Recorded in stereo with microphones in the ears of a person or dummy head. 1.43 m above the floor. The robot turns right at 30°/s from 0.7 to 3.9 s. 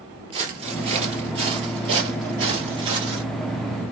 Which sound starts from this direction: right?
Footsteps, at 0.3 s.